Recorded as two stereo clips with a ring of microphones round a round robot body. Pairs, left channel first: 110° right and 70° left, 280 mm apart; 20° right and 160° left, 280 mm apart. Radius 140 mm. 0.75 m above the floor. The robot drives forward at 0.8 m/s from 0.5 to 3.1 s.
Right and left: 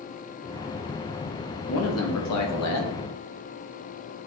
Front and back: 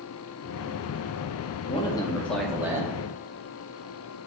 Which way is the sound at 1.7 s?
85° right.